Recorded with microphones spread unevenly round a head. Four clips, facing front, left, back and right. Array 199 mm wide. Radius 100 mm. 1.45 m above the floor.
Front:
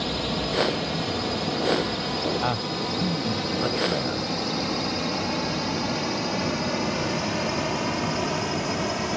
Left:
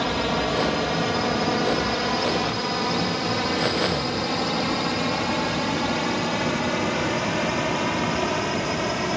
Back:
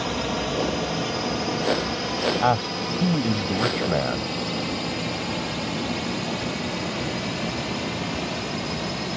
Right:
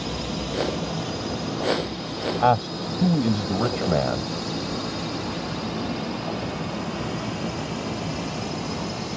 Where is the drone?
105° left; by 9.2 s 70° left.